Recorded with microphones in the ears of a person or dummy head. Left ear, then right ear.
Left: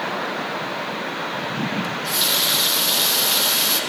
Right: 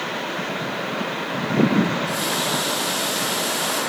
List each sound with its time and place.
1.8 s a running tap: 50° left (ahead or behind), 0.9 m